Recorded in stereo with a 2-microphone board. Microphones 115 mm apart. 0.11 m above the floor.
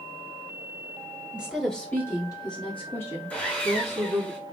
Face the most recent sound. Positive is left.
turn(degrees=15)  # may be behind; listen again after turning